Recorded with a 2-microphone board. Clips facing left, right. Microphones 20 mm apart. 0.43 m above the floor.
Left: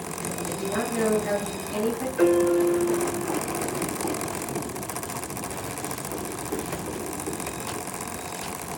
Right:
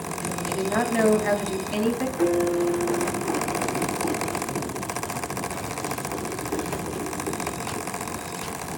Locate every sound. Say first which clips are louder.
0.4 s a woman speaking: right 4 dB; 45° right (ahead or behind), 3.5 m
2.2 s a piano: left 4 dB; 40° left (ahead or behind), 2.5 m